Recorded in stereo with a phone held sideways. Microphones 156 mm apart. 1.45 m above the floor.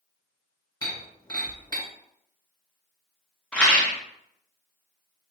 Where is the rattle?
5° left (ahead or behind), 0.9 m.